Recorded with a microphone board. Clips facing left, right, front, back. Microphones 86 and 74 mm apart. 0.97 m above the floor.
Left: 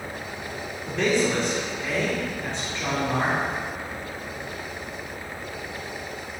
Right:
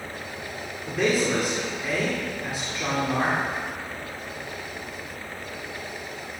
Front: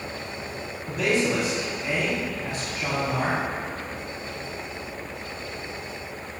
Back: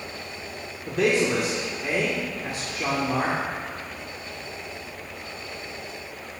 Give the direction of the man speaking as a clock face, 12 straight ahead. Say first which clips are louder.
Even, back 2 dB; 6 o'clock.